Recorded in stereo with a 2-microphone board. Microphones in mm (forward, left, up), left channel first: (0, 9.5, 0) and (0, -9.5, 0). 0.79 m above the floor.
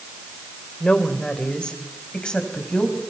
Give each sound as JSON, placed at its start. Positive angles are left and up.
{"t": 0.8, "sound": "a woman speaking", "side_deg": 55, "distance_m": 2.5}